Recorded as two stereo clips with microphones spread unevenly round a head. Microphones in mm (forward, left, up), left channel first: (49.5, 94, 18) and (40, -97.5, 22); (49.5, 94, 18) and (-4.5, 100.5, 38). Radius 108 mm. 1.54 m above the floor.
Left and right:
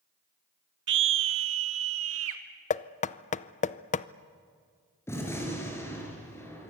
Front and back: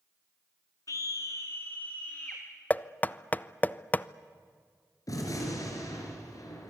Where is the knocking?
65° left, 0.5 m.